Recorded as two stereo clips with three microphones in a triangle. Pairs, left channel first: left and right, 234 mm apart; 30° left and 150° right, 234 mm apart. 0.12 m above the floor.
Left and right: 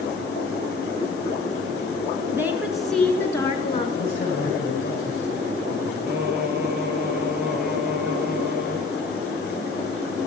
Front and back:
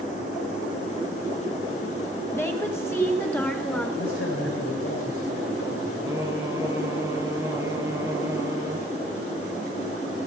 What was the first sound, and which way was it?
A woman speaking, 30° right.